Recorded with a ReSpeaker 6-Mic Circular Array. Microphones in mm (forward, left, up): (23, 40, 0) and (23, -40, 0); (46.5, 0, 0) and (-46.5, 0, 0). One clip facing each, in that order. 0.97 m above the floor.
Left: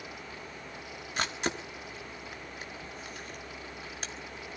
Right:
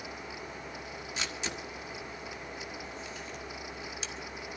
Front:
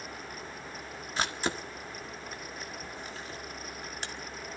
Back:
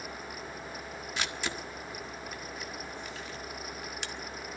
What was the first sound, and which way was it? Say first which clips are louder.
A camera shutter: left 6 dB, front 5 dB; 50° left.